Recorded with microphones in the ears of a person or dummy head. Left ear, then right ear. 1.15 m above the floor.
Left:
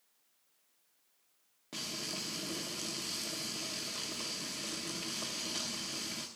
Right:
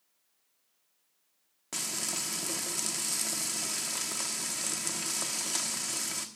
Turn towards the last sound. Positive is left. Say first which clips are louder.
# right 4 dB
turn(degrees=-45)  # may be behind; listen again after turning